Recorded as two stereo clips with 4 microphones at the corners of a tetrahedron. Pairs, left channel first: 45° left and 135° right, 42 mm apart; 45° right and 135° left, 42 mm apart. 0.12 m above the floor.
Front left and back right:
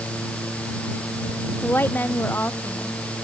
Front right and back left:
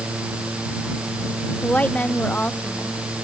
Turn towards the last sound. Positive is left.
turn(degrees=10)